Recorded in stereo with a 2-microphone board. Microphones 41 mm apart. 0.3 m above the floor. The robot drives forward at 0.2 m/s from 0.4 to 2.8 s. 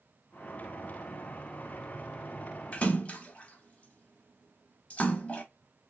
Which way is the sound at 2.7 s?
30° left (ahead or behind).